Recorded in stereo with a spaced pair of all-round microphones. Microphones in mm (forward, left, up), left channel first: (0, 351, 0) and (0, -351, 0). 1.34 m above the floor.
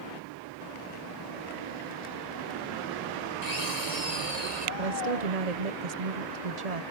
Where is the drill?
65° left (ahead or behind).